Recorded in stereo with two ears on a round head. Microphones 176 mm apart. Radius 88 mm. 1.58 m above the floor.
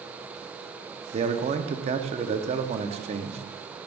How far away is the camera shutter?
No camera shutter in this recording.